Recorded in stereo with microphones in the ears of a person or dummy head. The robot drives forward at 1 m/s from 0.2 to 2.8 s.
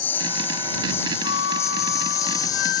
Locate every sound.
0.0 s a lawn mower: 10° left (ahead or behind); by 2.8 s 20° left (ahead or behind)
1.2 s a flute: 85° left; by 2.8 s 70° left (ahead or behind)